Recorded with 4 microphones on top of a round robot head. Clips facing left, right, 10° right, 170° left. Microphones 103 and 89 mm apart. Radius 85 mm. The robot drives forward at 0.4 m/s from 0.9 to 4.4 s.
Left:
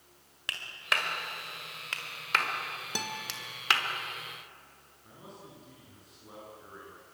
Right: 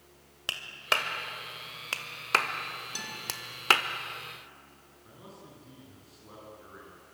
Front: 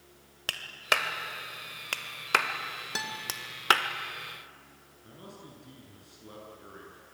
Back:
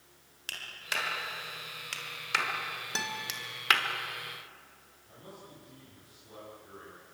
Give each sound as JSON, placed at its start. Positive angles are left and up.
{"t": 0.5, "sound": "a clap", "azimuth_deg": -30, "distance_m": 2.0}
{"t": 3.0, "sound": "a guitar", "azimuth_deg": 75, "distance_m": 2.5}
{"t": 5.0, "sound": "a man speaking", "azimuth_deg": -5, "distance_m": 9.0}